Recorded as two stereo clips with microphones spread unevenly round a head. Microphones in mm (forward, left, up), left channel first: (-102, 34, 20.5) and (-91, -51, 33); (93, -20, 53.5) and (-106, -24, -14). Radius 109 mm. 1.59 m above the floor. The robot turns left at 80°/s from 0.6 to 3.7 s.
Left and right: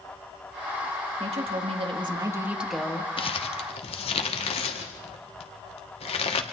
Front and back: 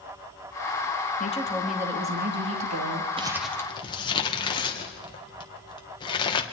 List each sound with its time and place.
1.2 s a woman speaking: 50° right, 3 m; by 3.1 s 160° left, 3 m
3.2 s crumpling: 115° left, 1.8 m; by 6.4 s 75° left, 1.8 m